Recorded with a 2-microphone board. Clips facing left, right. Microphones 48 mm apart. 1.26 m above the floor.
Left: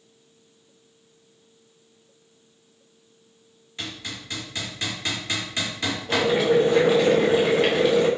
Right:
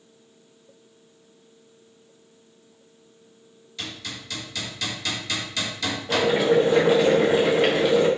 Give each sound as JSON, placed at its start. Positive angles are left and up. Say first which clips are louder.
{"t": 3.8, "sound": "hammering", "louder": "left 1 dB", "side_deg": 30, "distance_m": 1.6}
{"t": 6.1, "sound": "boiling", "louder": "even", "side_deg": -5, "distance_m": 1.0}